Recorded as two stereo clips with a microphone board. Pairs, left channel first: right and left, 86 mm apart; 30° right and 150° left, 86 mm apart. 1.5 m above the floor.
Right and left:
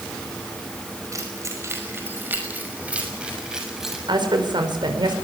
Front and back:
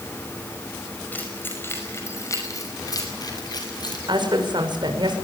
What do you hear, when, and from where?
1.1 s keys jangling: 40° left, 5.5 m; by 4.0 s 5° left, 7 m
4.1 s a woman speaking: 120° left, 5.5 m